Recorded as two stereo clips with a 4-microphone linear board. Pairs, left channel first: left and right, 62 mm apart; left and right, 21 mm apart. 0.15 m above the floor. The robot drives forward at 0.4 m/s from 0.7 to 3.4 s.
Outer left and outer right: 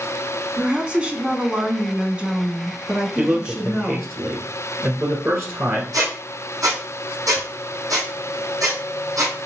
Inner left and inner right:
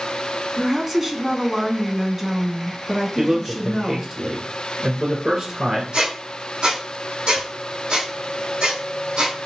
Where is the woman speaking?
20° right (ahead or behind), 1.0 m; by 4.1 s 15° right (ahead or behind), 1.3 m.